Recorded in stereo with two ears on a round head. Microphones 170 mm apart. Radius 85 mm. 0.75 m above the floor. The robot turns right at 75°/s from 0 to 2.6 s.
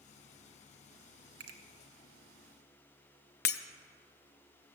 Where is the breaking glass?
55° left (ahead or behind), 0.6 m.